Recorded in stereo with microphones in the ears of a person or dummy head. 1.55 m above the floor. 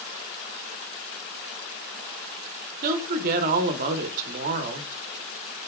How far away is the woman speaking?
About 0.8 m.